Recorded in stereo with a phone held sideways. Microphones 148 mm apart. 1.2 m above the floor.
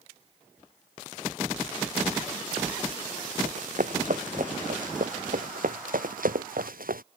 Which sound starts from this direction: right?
Running footsteps, at 3.4 s.